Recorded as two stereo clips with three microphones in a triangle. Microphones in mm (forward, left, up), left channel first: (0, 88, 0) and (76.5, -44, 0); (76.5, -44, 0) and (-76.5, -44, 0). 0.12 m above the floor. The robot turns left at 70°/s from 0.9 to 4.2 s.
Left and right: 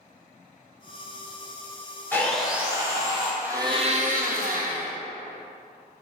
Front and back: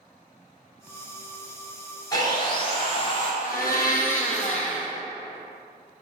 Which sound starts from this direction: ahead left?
Sawing, at 2.1 s.